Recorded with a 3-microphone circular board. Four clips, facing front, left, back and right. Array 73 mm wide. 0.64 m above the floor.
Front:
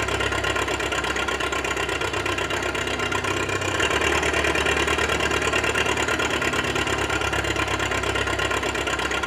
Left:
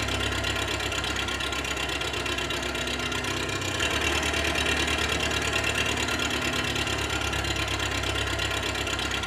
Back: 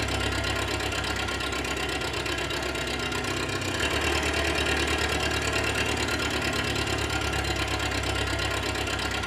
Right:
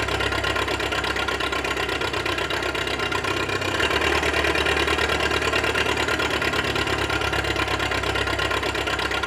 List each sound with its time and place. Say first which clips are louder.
0.0 s an engine running: right 6 dB, front 5 dB; 45° right, 1.5 m